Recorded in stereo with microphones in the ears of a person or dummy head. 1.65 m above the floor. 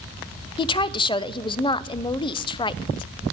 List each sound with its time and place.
0.6 s a woman speaking: 25° left (ahead or behind), 0.5 m